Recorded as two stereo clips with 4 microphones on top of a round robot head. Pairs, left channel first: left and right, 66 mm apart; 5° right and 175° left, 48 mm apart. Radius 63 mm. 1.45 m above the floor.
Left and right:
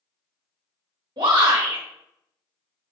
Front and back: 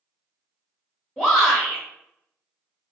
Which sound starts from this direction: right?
A shout, at 1.2 s.